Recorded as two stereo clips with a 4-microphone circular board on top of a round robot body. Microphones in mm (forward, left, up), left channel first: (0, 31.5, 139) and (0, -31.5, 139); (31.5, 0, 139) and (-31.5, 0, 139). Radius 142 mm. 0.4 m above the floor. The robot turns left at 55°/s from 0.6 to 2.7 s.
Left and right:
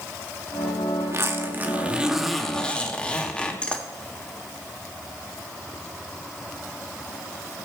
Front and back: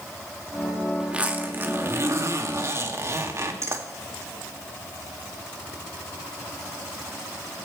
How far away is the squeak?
I don't hear a squeak.